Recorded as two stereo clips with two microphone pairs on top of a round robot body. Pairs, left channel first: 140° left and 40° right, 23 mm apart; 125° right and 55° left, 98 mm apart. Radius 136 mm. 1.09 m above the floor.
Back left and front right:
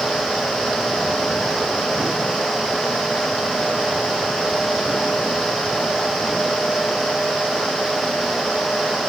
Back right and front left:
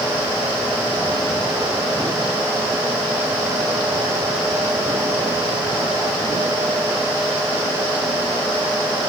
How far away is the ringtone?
I don't hear a ringtone.